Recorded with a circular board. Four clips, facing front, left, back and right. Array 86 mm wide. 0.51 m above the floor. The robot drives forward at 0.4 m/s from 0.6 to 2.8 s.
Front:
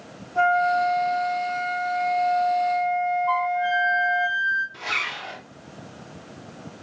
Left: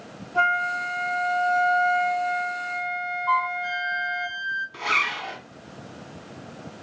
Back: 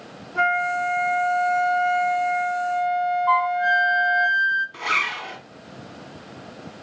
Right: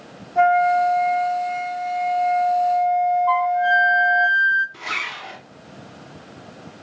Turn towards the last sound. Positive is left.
turn(degrees=145)